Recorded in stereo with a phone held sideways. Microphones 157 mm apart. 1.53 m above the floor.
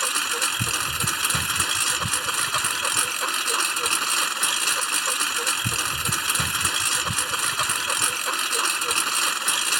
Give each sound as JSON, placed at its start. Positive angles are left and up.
{"t": 0.0, "sound": "a lawn mower", "side_deg": 0}